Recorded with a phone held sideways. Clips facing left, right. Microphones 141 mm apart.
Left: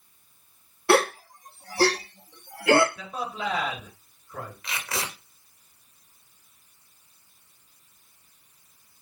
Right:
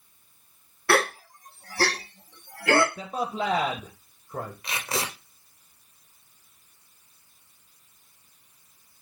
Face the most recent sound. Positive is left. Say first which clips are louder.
# right 1 dB
turn(degrees=-30)  # may be behind; listen again after turning